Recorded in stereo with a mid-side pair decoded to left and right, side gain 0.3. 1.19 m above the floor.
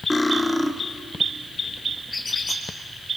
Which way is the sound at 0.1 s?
20° left.